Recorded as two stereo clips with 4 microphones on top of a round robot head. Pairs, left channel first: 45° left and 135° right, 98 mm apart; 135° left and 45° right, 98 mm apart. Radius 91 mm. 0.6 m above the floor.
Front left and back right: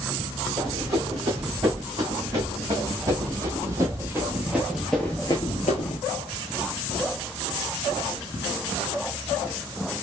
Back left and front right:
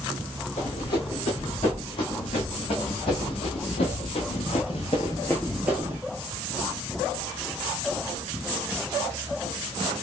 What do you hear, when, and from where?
0.6 s running footsteps: 170° left, 3 m; by 6.0 s 20° left, 0.7 m